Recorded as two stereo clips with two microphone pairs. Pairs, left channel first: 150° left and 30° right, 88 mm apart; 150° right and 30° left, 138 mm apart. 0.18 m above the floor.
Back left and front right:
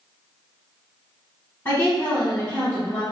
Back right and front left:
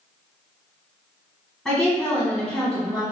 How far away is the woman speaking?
About 1.4 m.